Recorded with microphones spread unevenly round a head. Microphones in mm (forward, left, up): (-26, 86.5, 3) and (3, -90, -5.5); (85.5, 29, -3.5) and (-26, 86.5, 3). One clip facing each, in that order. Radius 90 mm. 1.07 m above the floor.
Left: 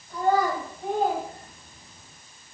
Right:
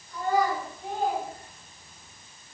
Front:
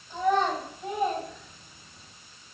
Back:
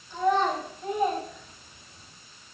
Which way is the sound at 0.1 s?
45° left.